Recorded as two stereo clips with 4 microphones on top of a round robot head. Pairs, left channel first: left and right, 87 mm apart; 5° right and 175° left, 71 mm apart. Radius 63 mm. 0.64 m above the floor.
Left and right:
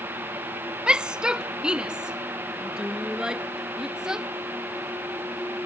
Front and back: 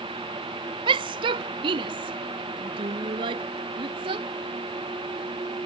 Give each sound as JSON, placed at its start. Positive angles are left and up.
{"t": 0.9, "sound": "a shout", "azimuth_deg": -170}